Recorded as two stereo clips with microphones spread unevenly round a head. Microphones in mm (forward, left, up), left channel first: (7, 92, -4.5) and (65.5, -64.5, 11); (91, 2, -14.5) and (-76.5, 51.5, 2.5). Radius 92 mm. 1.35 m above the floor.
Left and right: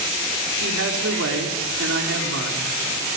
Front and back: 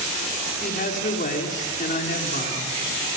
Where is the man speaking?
70° right, 4 m.